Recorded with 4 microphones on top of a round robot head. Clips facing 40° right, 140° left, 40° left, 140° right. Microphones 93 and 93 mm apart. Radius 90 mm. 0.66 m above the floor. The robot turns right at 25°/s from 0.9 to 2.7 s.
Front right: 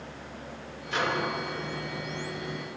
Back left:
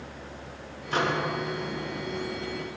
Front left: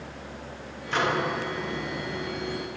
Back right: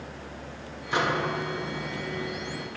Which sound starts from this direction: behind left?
A microwave, at 0.9 s.